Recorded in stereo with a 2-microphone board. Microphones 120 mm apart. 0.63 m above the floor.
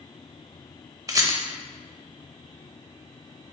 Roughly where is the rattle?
Right.